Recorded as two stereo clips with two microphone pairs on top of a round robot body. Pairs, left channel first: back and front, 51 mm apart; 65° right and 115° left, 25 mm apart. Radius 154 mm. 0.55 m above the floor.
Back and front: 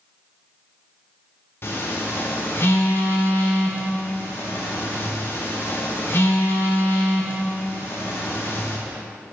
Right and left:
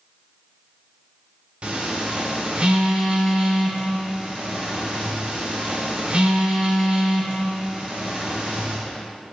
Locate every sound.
1.6 s a phone buzzing: 140° left, 1.4 m